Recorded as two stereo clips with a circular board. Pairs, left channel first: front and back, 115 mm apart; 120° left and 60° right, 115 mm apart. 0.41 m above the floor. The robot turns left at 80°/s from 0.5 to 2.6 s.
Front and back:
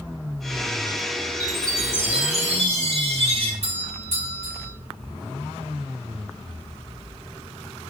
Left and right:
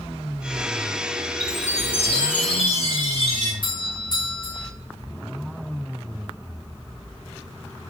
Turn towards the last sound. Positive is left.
turn(degrees=160)